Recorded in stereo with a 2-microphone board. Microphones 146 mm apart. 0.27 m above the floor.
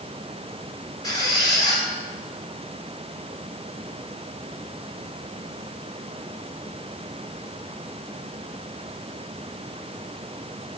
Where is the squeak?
25° left (ahead or behind), 2 m.